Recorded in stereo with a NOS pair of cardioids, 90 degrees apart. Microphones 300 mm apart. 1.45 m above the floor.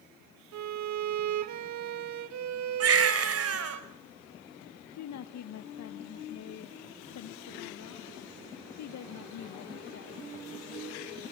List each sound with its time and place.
0.5 s a violin: 70° right, 1.7 m
2.8 s a baby crying: 55° right, 4 m
5.0 s a woman speaking: 65° left, 1.6 m